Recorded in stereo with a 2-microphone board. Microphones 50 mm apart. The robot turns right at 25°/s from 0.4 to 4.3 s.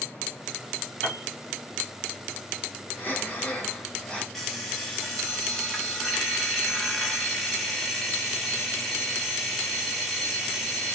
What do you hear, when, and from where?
1.0 s a piano: 30° left (ahead or behind), 1.7 m; by 1.2 s 25° left (ahead or behind), 1.7 m
3.0 s breathing: 130° left, 1.0 m; by 4.2 s 160° left, 1.0 m
4.3 s an alarm clock: 5° left (ahead or behind), 1.0 m